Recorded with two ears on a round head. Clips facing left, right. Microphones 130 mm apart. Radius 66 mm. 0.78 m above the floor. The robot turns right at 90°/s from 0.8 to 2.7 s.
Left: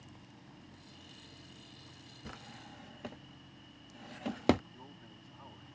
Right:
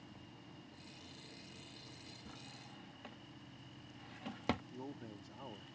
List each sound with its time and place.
2.2 s a drawer: 70° left (ahead or behind); by 4.6 s 55° left (ahead or behind)
4.7 s a man speaking: 40° right (ahead or behind)